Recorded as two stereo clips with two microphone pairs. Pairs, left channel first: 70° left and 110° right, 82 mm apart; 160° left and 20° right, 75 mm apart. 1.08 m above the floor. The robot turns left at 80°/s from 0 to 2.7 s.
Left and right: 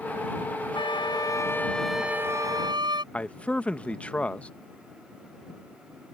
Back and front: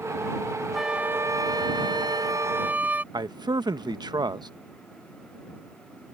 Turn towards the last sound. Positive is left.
turn(degrees=-5)